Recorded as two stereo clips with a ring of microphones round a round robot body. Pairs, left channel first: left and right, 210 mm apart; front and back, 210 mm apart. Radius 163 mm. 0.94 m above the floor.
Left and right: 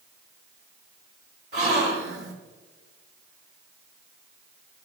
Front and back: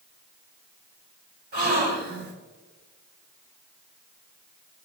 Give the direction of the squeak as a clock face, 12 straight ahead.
I don't hear a squeak.